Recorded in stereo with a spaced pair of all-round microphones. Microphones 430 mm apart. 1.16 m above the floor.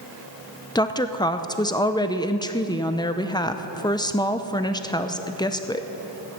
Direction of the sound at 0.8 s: 10° left (ahead or behind).